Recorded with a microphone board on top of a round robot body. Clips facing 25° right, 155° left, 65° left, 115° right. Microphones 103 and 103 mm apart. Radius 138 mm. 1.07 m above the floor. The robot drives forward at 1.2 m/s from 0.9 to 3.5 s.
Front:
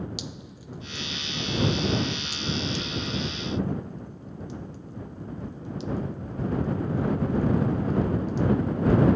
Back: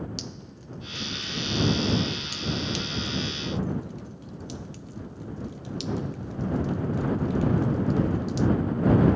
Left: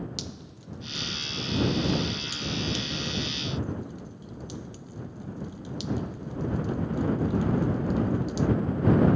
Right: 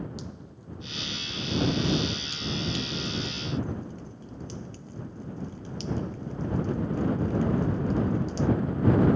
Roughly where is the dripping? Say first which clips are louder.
Even, left 1 dB; ahead left.